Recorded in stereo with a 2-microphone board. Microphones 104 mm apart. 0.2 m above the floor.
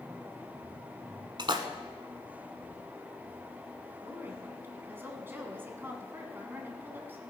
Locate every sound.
1.4 s a splash: 50° right (ahead or behind), 1.1 m
4.0 s a woman speaking: 20° right (ahead or behind), 1.9 m